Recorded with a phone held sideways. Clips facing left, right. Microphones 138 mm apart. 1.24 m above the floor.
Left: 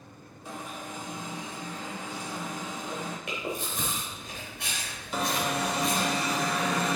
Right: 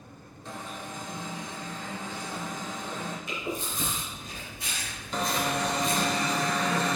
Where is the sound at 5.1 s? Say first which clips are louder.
Even; 10° left (ahead or behind), 1.1 m.